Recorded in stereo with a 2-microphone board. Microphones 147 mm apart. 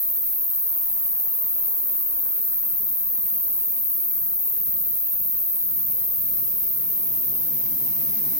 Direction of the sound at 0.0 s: 70° left (ahead or behind).